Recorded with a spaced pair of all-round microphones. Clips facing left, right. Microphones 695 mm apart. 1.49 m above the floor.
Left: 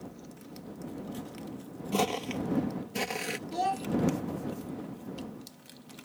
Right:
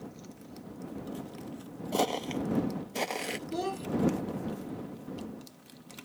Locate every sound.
1.9 s footsteps: 40° left (ahead or behind)
3.5 s a child speaking: 30° left (ahead or behind)